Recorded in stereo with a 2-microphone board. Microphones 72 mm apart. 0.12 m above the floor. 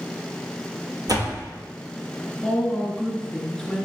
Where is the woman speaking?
10° left (ahead or behind), 1.9 m.